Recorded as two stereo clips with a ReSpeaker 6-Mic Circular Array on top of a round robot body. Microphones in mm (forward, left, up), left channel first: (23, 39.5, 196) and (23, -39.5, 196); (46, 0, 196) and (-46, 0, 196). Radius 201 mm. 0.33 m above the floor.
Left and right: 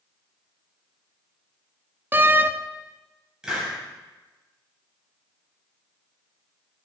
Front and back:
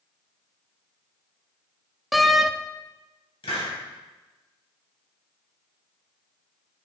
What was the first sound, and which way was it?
A door slam, 90° right.